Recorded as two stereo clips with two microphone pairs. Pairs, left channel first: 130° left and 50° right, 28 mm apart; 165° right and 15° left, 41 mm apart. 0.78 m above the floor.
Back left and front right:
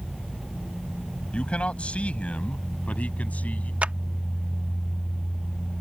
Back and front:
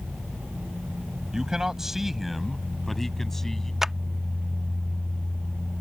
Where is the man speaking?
90° left; by 3.7 s 115° left.